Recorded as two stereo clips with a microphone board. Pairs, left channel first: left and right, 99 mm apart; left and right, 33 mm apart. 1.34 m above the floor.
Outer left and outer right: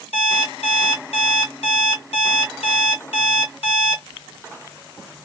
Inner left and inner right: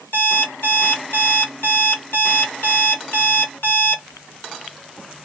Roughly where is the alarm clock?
Left.